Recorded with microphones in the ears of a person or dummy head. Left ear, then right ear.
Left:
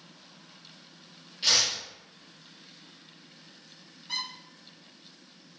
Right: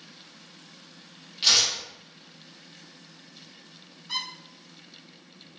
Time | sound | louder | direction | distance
1.4 | tearing paper | right 3 dB | 25° right (ahead or behind) | 1.2 m
4.1 | a squeak | right 2 dB | 5° left (ahead or behind) | 1.4 m